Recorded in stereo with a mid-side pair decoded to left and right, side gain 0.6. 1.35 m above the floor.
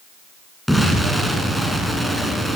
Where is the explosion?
5° left, 7 m.